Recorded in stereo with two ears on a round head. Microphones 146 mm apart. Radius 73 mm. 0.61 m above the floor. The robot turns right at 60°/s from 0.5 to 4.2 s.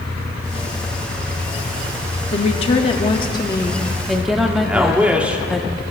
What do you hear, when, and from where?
2.3 s a woman speaking: 70° left, 1.1 m; by 5.6 s 175° right, 1.1 m
4.6 s a man speaking: 10° right (ahead or behind), 1.5 m